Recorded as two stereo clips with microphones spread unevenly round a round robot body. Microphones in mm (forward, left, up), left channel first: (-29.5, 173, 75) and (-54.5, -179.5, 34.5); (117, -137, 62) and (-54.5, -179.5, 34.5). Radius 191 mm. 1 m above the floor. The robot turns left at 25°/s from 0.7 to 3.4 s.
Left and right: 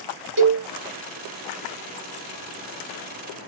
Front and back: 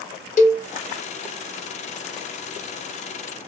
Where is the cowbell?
30° right, 1.0 m.